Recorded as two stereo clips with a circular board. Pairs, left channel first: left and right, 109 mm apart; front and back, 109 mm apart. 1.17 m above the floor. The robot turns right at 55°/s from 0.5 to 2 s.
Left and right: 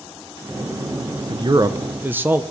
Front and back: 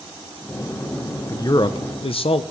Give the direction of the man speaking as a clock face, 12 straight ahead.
2 o'clock.